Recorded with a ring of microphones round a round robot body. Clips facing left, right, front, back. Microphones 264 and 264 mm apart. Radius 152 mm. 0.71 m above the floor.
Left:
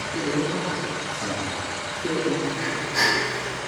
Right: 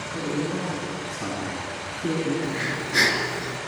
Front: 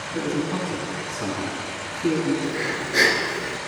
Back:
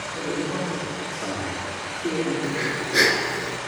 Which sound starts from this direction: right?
Breathing, at 2.4 s.